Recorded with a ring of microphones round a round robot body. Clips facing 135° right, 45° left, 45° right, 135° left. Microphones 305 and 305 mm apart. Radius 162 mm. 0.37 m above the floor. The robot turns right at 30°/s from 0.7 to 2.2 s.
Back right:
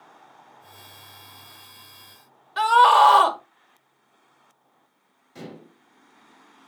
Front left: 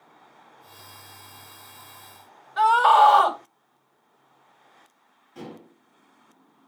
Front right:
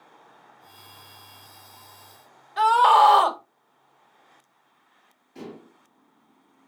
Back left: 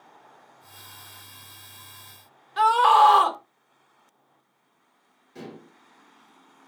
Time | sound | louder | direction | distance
2.6 | a scream | even, front right 1 dB | 160° right | 1.6 m
5.3 | dishes clattering | even, front right 1 dB | 165° right | 4.5 m